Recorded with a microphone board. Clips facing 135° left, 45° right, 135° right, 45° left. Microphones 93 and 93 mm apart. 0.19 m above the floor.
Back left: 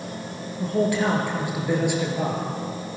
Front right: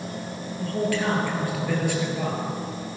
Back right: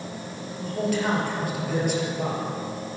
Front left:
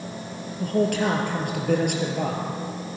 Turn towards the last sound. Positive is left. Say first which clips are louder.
# back left 3 dB, front left 4 dB
turn(degrees=65)